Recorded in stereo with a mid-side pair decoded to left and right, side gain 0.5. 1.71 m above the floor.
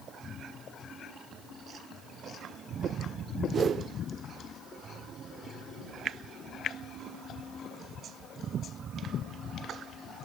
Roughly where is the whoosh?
Ahead right.